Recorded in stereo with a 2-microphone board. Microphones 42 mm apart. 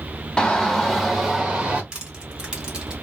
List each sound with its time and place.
0.4 s a shout: 20° left (ahead or behind), 0.9 m; by 1.8 s 20° right (ahead or behind), 1.1 m
1.9 s crushing: 20° right (ahead or behind), 1.1 m